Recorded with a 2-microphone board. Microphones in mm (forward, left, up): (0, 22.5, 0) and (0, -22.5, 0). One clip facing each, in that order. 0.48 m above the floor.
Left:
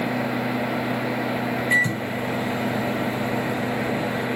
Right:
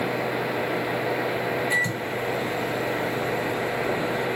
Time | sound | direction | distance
1.7 | a microwave | 25° left (ahead or behind) | 1.1 m